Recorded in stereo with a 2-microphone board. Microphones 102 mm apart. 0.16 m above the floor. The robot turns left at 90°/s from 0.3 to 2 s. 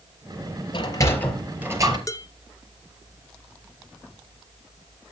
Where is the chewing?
No chewing in this recording.